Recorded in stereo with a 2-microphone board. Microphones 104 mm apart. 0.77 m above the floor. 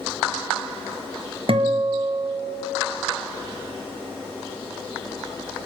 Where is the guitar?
60° right (ahead or behind), 1.2 m.